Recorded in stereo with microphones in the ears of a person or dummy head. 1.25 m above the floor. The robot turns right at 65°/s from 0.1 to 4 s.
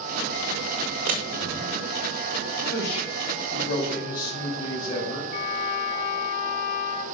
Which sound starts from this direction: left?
A trumpet, at 5.3 s.